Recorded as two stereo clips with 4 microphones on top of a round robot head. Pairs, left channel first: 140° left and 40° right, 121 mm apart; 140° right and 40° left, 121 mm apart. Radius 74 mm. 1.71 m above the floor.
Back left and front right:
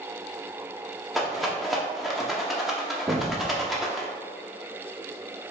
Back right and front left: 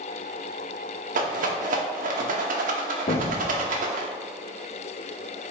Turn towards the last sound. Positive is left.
turn(degrees=-110)